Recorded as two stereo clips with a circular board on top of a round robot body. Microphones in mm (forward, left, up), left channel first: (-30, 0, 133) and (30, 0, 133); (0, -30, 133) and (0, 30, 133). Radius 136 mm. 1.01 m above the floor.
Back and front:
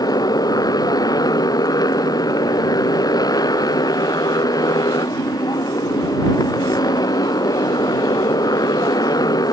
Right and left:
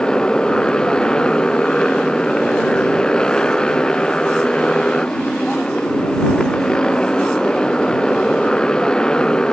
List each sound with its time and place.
0.0 s a motorcycle: 165° right